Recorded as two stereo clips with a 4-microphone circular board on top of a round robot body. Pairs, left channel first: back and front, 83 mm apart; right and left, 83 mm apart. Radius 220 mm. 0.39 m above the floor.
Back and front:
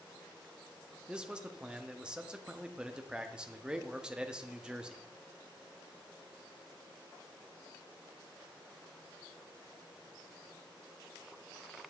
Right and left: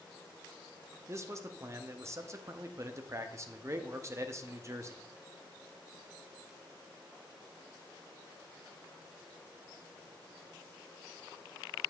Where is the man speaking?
70° left, 1.1 m.